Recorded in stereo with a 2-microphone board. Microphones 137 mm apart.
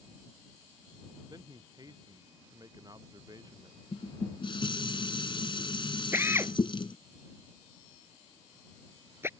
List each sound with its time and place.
1.3 s a man speaking: 30° right (ahead or behind)
3.9 s dishes clattering: 40° left (ahead or behind)
6.1 s a drill: 20° right (ahead or behind)